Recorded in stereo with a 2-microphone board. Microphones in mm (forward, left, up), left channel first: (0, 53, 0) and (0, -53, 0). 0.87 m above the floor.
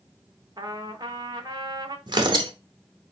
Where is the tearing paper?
45° right (ahead or behind), 0.8 m.